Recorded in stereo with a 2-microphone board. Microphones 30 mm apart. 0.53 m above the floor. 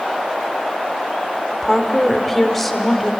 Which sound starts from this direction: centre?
A woman speaking, at 1.6 s.